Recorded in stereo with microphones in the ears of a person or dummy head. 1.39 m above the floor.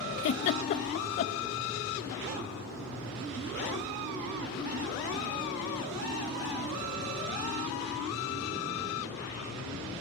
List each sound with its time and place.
0.2 s a giggle: 40° left (ahead or behind), 0.8 m